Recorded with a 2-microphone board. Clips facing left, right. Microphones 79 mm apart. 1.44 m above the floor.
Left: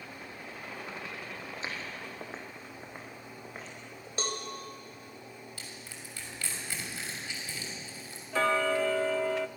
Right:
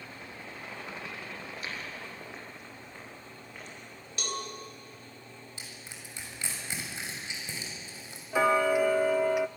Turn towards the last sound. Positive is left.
turn(degrees=-10)  # may be behind; listen again after turning